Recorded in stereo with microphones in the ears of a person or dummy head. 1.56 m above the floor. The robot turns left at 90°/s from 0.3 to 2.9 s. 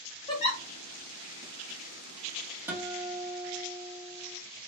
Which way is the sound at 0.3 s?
25° left (ahead or behind).